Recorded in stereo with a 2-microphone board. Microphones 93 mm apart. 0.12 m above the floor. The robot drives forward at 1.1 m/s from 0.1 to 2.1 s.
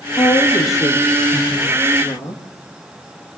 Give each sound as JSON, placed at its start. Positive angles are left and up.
{"t": 0.2, "sound": "a woman speaking", "side_deg": 35, "distance_m": 7.5}